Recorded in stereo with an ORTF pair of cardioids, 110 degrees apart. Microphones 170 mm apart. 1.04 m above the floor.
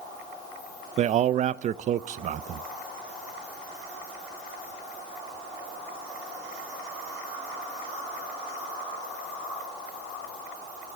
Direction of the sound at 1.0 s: 45° right.